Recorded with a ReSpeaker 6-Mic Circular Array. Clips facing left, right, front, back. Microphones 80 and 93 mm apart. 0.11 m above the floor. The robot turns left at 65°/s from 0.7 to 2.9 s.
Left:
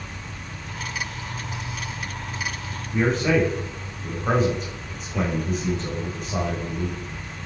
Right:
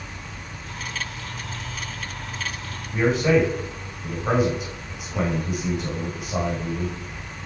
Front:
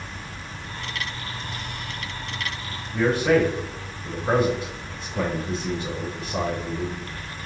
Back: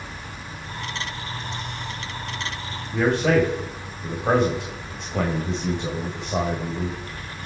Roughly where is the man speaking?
Behind.